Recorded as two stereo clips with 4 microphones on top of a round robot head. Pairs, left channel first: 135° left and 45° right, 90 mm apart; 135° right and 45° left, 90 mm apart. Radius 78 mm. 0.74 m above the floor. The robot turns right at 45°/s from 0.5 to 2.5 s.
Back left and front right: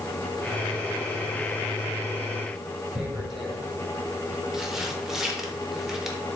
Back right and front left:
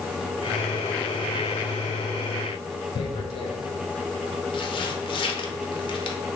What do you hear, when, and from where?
3.0 s tearing paper: 135° right, 0.6 m